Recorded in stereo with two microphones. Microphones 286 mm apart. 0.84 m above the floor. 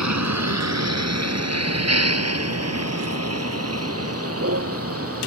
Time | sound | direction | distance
0.0 | a vehicle | 65° right (ahead or behind) | ?